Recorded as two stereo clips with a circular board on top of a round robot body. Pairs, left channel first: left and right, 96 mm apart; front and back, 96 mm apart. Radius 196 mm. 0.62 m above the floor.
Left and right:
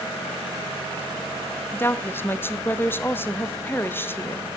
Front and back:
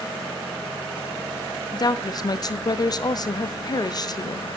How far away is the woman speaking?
About 1.1 m.